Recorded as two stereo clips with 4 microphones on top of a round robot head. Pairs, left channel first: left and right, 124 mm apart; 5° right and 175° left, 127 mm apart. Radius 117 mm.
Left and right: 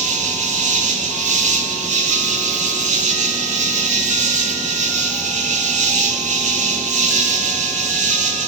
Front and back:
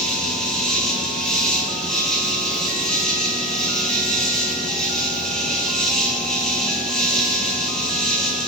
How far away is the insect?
About 1.2 m.